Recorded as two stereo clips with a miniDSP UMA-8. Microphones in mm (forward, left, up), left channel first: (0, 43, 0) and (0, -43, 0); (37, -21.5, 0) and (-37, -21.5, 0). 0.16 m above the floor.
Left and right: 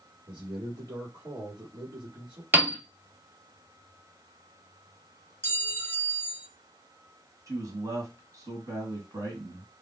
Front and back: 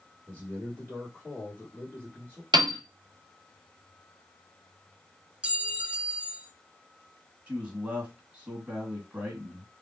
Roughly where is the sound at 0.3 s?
Right.